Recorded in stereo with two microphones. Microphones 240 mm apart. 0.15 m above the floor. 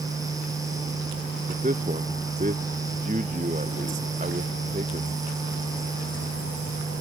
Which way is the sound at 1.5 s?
35° right (ahead or behind).